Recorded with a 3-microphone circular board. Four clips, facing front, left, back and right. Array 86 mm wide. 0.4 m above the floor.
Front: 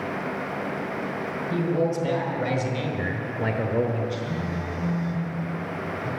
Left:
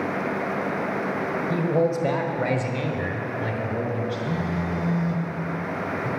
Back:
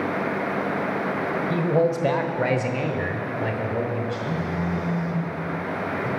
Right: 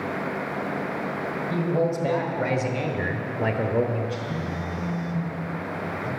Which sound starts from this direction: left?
A phone buzzing, at 4.3 s.